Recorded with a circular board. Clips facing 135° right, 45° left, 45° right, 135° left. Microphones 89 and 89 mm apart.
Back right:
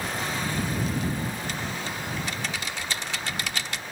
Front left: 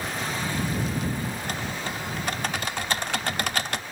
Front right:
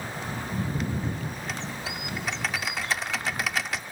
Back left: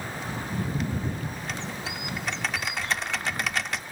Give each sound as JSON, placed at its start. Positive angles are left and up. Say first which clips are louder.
{"t": 1.4, "sound": "typing on a keyboard", "louder": "front left 1 dB, even", "azimuth_deg": 40}